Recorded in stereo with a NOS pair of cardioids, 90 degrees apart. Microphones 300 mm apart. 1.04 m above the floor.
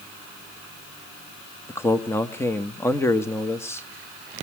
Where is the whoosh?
No whoosh in this recording.